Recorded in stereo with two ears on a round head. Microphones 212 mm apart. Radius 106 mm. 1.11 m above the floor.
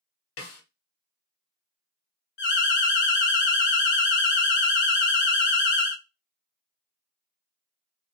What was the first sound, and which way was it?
A snare drum, 60° left (ahead or behind).